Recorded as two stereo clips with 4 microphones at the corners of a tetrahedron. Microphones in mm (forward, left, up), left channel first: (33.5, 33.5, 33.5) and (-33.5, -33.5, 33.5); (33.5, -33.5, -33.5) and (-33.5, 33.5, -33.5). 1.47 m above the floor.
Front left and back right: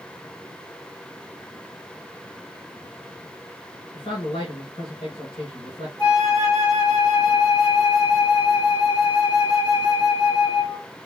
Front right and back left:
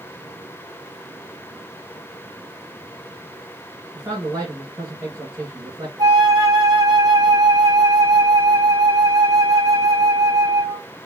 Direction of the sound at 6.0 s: 85° left.